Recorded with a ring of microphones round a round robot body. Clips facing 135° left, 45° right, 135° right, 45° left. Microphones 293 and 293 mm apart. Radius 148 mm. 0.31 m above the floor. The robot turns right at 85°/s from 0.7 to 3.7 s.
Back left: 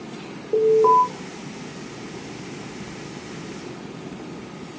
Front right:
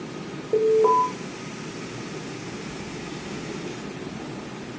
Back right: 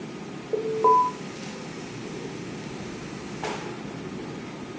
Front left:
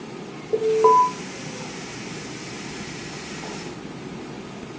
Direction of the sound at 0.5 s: 50° left.